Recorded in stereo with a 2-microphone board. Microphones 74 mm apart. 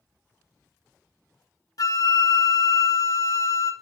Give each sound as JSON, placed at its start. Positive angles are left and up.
{"t": 1.8, "sound": "a flute", "side_deg": 55, "distance_m": 0.7}